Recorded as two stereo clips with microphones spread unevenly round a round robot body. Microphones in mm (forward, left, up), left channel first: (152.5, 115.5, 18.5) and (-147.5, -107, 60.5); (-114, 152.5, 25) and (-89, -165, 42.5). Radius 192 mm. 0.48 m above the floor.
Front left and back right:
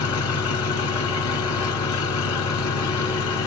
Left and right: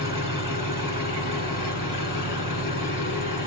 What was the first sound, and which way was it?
An engine running, 10° right.